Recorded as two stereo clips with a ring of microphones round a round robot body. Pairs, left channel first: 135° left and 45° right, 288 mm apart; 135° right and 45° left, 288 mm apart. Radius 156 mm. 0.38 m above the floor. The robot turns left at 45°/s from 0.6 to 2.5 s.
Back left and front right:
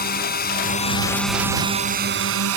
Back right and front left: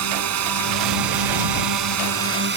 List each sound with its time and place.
0.0 s a drone: 75° left; by 2.6 s 10° right